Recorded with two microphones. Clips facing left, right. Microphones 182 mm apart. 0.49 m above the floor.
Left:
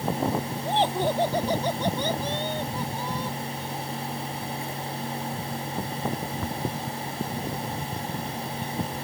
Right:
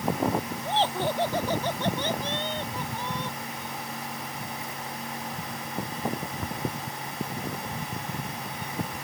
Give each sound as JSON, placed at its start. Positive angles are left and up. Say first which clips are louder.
{"t": 0.7, "sound": "laughter", "louder": "left 3 dB", "side_deg": 15}